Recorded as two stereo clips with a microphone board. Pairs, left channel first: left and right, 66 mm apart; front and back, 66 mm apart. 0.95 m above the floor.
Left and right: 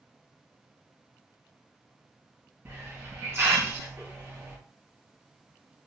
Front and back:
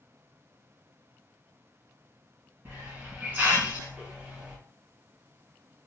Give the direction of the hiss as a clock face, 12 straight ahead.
4 o'clock.